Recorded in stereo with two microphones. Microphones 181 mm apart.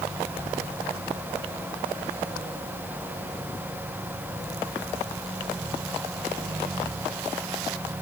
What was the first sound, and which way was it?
Only background noise.